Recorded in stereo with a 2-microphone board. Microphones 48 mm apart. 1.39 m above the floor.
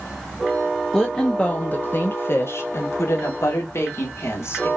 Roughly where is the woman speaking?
Centre.